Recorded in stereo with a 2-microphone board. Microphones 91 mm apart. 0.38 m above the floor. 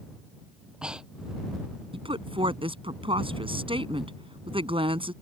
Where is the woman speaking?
70° right (ahead or behind).